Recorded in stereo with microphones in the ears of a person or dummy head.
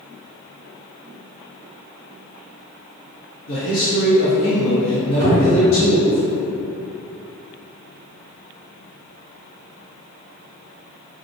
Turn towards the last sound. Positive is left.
turn(degrees=-45)  # may be behind; listen again after turning